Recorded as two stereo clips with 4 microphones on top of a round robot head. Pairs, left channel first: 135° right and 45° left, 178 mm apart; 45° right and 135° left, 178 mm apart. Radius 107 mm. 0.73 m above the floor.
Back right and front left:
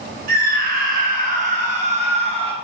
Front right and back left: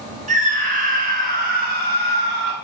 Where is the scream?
85° left, 4 m; by 2.5 s 105° left, 4 m.